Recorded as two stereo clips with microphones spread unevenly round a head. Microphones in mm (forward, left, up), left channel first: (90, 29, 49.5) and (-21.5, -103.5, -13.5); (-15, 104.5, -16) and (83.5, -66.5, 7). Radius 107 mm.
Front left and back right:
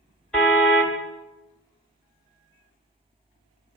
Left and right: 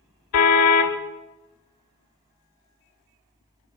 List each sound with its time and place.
0.3 s a car horn: 130° left, 2 m